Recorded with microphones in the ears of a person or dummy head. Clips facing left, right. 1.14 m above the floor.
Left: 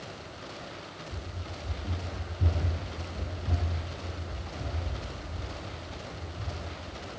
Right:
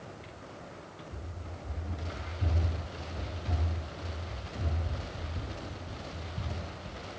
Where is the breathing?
I don't hear breathing.